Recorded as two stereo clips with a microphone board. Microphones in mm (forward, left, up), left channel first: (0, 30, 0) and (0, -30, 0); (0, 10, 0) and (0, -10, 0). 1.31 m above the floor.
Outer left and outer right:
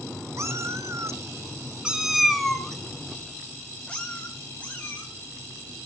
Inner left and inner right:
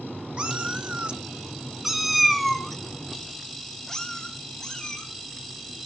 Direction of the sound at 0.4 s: 55° right (ahead or behind).